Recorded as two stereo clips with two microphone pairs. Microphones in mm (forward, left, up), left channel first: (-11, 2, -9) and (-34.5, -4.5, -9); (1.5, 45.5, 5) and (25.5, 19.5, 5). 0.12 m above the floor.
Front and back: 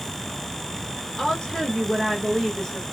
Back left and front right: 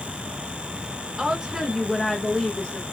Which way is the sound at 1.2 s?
20° right.